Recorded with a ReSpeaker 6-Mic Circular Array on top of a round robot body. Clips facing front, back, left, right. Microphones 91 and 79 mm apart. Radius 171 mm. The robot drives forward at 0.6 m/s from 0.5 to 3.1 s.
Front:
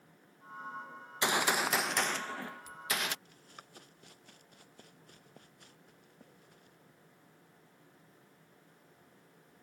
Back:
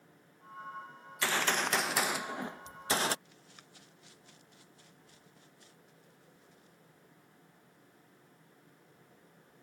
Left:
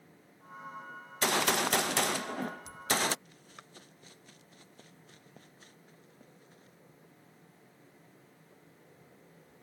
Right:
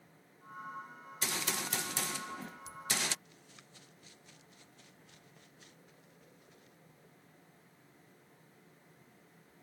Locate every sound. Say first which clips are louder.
1.2 s a gunshot: front 1 dB, left 10 dB; 70° left; by 3.1 s 130° left
3.2 s running footsteps: front 3 dB, left 5 dB; 45° left; by 6.8 s 35° left